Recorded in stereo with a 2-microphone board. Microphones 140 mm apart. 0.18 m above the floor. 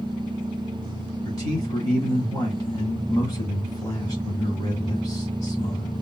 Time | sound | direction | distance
1.2 | a man speaking | 25° left (ahead or behind) | 1.8 m